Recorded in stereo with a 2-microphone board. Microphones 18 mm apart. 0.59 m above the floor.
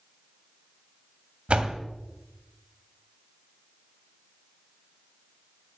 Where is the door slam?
75° right (ahead or behind), 2.0 m.